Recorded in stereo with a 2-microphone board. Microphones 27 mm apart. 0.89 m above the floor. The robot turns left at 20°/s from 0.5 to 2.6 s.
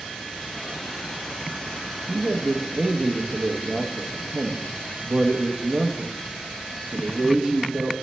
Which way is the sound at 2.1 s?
45° right (ahead or behind).